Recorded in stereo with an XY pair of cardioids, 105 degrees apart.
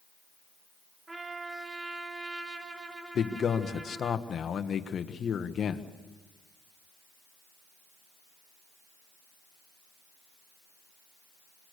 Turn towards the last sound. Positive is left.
turn(degrees=50)